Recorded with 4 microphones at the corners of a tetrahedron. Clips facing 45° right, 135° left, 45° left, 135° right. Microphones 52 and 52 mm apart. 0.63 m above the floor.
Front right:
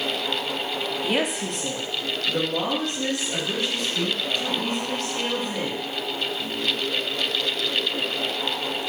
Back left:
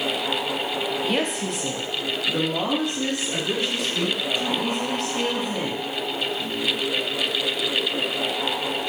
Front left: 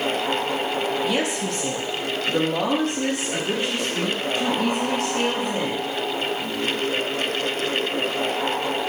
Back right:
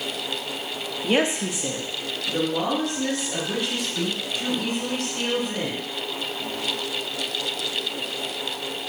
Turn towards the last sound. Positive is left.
turn(degrees=70)